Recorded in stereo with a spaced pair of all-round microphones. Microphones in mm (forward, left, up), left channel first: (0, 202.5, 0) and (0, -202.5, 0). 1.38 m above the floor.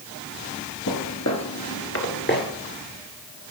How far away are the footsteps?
About 1.9 m.